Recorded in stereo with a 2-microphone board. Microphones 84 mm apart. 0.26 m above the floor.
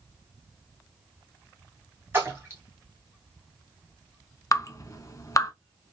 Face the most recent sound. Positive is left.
turn(degrees=40)  # may be behind; listen again after turning